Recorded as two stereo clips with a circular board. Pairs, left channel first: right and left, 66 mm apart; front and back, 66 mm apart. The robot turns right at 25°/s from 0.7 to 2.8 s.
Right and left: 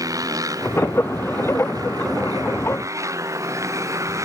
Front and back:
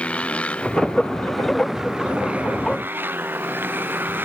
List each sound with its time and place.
0.0 s a motorcycle: 70° left; by 4.2 s 125° left